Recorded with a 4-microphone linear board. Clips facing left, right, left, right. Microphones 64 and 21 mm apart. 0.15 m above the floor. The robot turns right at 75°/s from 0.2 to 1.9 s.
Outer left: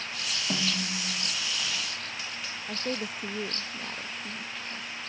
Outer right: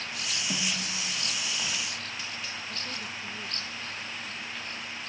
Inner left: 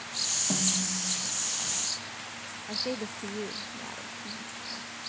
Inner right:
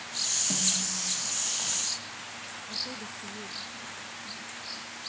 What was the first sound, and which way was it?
A snare drum, 15° left.